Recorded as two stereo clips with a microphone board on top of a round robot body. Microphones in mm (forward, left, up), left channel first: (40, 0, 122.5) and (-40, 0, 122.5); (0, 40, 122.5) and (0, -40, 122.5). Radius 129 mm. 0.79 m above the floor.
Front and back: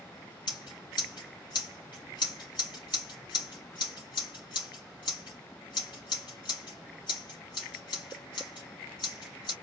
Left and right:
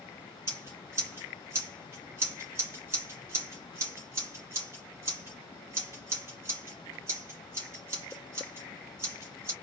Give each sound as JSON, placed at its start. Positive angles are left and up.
{"t": 0.5, "sound": "scissors", "azimuth_deg": -35, "distance_m": 3.0}